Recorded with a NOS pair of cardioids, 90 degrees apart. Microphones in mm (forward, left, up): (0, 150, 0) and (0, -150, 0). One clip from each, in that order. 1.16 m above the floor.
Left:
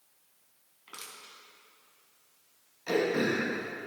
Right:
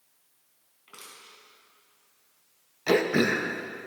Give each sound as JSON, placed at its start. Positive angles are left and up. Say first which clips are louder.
{"t": 0.9, "sound": "crushing", "louder": "left 2 dB", "azimuth_deg": 30, "distance_m": 3.5}
{"t": 2.9, "sound": "throat clearing", "louder": "right 5 dB", "azimuth_deg": -60, "distance_m": 1.2}